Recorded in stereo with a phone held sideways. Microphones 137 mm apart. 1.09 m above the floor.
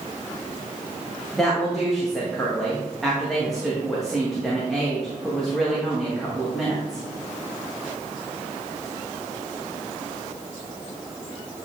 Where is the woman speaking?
Centre (ahead or behind), 1.6 m.